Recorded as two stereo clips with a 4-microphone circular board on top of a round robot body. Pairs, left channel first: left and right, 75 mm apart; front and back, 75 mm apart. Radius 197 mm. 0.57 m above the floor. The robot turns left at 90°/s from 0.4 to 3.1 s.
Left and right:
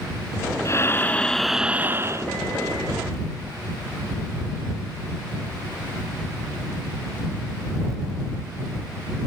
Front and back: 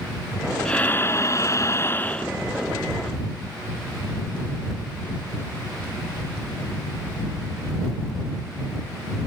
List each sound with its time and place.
0.7 s breathing: 75° left; by 2.3 s 75° right